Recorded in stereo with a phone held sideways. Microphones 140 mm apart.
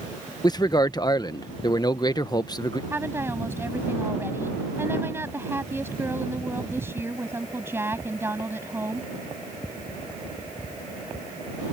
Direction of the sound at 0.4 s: 30° left (ahead or behind).